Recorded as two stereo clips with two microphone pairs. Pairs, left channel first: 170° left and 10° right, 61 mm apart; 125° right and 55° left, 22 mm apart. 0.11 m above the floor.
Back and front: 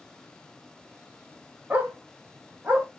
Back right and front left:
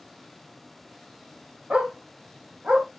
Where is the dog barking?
60° left, 1.6 m; by 2.9 s 55° left, 2.5 m.